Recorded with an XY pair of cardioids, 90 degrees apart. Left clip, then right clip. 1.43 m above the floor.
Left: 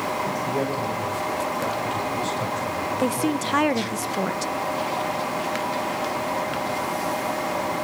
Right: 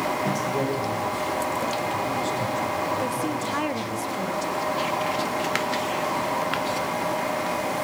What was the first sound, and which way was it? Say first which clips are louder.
A man speaking: even; 15° left.